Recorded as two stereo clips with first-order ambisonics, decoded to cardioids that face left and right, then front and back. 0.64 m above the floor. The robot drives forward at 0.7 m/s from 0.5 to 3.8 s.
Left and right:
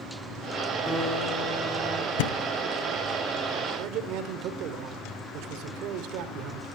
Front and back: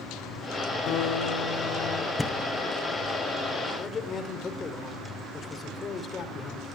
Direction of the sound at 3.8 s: 60° right.